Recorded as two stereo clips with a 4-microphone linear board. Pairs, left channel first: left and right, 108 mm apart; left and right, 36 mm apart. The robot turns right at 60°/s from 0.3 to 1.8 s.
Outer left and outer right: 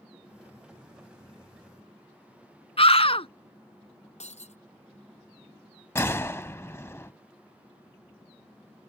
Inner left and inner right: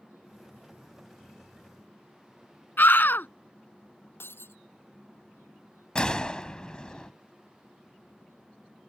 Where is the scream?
60° left (ahead or behind).